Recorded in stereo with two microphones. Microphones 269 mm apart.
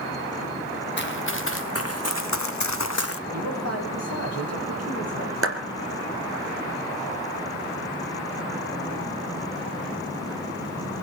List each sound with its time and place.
1.0 s running footsteps: 40° left (ahead or behind), 2 m; by 3.2 s 50° left (ahead or behind), 0.9 m
3.3 s a man speaking: 60° right (ahead or behind), 6 m
5.4 s a clap: 50° right (ahead or behind), 3 m